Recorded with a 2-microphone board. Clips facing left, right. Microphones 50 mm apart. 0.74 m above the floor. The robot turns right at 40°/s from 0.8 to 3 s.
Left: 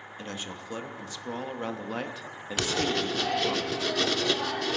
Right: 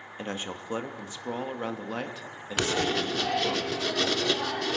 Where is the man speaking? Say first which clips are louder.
Right 4 dB; 45° right, 1.0 m; by 3.6 s 45° left, 1.0 m.